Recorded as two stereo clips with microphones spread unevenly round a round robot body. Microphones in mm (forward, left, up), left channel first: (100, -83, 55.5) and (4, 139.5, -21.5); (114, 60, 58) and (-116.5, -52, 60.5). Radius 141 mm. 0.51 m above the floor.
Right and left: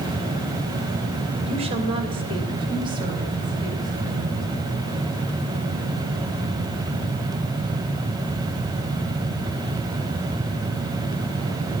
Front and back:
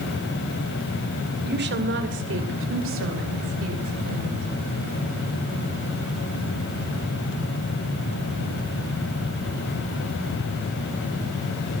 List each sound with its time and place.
1.4 s a woman speaking: 165° left, 2 m; by 4.5 s 175° right, 3.5 m